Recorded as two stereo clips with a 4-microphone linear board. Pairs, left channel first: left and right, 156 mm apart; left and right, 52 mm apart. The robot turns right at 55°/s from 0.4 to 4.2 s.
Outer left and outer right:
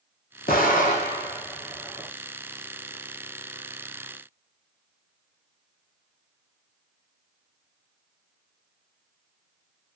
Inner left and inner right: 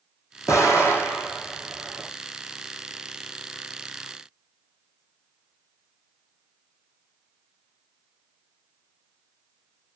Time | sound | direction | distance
0.5 | an explosion | 75° left (ahead or behind) | 1.3 m